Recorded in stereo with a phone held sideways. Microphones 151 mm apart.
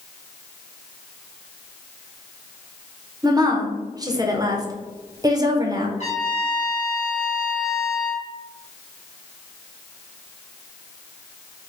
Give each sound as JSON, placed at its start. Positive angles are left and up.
{"t": 3.2, "sound": "a woman speaking", "side_deg": -25, "distance_m": 0.5}
{"t": 6.0, "sound": "a trumpet", "side_deg": 50, "distance_m": 1.4}